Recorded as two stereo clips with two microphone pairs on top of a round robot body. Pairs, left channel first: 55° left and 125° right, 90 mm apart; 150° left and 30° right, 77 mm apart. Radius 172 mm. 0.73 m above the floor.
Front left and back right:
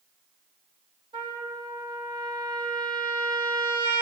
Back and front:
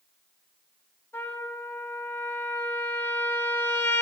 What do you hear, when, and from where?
1.1 s a trumpet: 150° right, 2.5 m